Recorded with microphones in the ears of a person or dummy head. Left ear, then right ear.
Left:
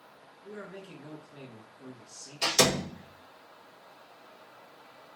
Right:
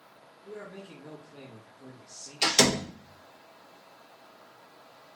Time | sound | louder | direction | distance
0.4 | a man speaking | right 1 dB | 30° left (ahead or behind) | 1.4 m
2.4 | a door slam | right 2 dB | 20° right (ahead or behind) | 1.3 m